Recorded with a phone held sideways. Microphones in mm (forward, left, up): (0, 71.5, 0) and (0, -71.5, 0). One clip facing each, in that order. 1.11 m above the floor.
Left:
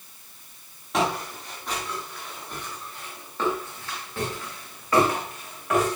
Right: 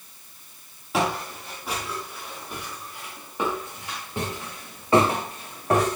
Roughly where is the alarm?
No alarm in this recording.